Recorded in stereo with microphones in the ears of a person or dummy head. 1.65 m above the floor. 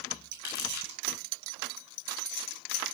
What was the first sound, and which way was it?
Crumpling, 60° left (ahead or behind).